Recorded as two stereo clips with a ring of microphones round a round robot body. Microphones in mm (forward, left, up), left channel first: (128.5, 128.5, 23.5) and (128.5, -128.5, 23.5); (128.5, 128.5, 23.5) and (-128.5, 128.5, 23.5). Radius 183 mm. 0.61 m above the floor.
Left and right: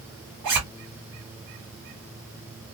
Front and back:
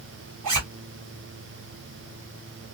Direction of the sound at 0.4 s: 130° right.